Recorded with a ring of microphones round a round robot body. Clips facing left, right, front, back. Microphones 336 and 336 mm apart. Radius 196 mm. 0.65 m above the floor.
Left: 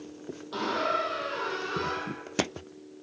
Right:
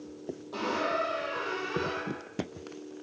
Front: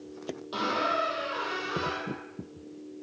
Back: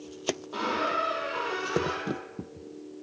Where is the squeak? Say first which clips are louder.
Left 1 dB, even; 35° left, 0.9 m.